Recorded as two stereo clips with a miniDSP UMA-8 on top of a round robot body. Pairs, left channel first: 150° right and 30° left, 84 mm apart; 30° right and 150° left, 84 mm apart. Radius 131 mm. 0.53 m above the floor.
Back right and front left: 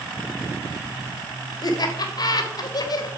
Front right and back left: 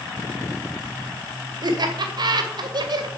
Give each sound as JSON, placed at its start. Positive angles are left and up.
{"t": 1.6, "sound": "laughter", "azimuth_deg": 175, "distance_m": 2.5}